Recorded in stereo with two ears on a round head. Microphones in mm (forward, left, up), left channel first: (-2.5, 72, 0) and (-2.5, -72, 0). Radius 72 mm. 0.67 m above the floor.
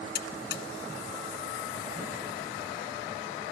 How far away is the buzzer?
About 2.5 m.